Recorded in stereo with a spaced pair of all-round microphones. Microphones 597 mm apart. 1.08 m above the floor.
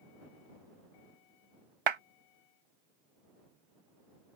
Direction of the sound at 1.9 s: 50° right (ahead or behind).